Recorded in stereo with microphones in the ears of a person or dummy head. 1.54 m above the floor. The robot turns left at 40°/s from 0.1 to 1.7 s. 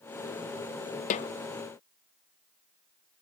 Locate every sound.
1.1 s a snare drum: 45° left (ahead or behind), 0.6 m; by 1.3 s 35° left (ahead or behind), 0.6 m